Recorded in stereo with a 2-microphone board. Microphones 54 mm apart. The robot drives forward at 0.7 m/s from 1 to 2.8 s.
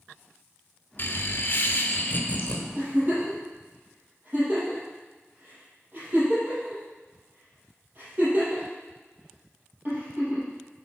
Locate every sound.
1.0 s laughter: 45° left (ahead or behind), 1.0 m; by 2.6 s 30° left (ahead or behind), 1.3 m
2.8 s a giggle: 40° right (ahead or behind), 4 m